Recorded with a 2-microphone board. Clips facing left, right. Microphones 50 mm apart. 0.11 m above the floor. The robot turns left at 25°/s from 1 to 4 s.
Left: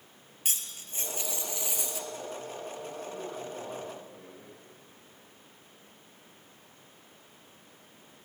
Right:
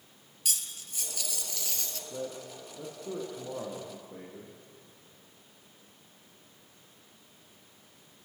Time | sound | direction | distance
0.5 | cutlery clinking | 35° left (ahead or behind) | 1.4 m
2.1 | a man speaking | 70° right | 5 m